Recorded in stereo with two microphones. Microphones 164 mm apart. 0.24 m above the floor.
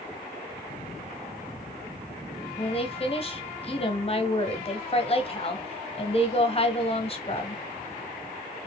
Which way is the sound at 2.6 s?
35° left (ahead or behind).